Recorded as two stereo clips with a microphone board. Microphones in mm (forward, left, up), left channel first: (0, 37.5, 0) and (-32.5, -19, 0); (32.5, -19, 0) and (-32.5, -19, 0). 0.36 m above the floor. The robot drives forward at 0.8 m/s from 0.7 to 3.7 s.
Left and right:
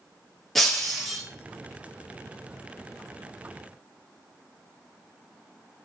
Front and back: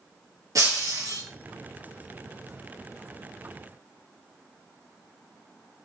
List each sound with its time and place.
0.6 s breaking glass: 145° left, 3 m; by 1.2 s 150° left, 3.5 m